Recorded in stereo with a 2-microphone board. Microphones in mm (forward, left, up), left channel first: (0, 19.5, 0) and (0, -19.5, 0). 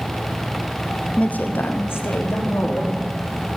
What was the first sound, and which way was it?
A woman speaking, 25° left (ahead or behind).